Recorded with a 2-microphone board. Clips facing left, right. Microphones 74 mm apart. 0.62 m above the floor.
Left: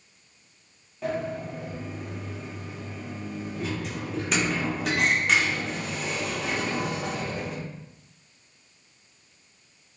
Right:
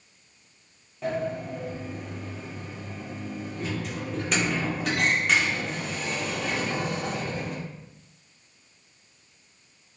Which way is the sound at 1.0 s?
Centre (ahead or behind).